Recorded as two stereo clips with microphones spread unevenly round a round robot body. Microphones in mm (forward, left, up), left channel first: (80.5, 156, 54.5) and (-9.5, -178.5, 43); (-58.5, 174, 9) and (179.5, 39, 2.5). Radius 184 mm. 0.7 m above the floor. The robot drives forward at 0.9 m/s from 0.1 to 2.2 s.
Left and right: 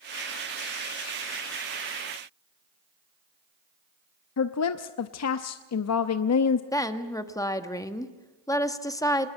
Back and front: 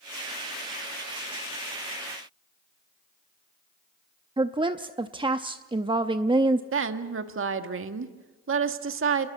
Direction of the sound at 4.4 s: 40° left.